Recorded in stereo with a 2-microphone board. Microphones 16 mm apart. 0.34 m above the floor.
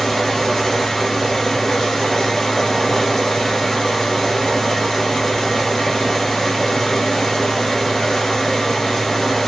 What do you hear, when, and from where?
0.0 s running water: 35° left (ahead or behind), 1.8 m